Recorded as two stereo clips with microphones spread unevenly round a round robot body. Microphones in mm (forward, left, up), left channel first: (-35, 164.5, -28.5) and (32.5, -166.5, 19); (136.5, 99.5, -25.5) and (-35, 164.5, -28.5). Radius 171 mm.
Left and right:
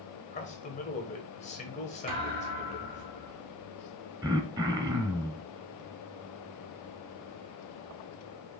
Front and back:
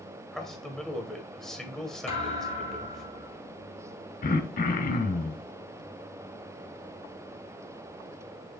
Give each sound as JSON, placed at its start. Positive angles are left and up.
{"t": 0.3, "sound": "a man speaking", "azimuth_deg": 65, "distance_m": 1.6}
{"t": 2.1, "sound": "a thud", "azimuth_deg": -30, "distance_m": 3.0}
{"t": 4.2, "sound": "throat clearing", "azimuth_deg": 5, "distance_m": 0.9}